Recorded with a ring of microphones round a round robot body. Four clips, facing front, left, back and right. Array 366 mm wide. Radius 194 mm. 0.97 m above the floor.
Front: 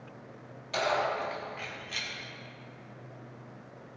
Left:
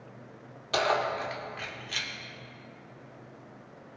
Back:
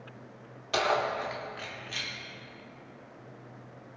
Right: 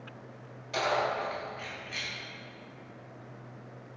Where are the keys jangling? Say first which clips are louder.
Left 2 dB, back 1 dB; 130° left, 2 m; by 2.1 s 85° left, 2.5 m.